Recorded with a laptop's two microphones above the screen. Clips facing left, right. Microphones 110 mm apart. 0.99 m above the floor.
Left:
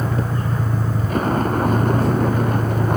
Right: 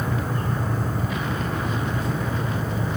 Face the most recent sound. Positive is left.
turn(degrees=60)  # may be behind; listen again after turning